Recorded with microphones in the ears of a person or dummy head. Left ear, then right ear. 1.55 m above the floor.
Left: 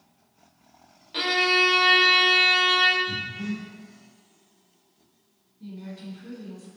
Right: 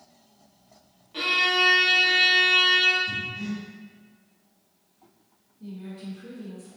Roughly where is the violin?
Left.